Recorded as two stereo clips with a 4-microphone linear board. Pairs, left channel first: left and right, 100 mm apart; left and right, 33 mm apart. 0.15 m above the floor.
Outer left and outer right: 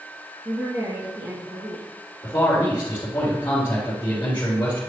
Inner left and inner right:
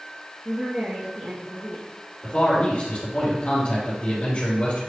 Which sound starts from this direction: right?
A woman speaking, at 0.5 s.